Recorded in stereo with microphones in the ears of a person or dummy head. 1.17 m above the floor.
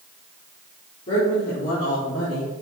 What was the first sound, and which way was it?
A woman speaking, 35° left (ahead or behind).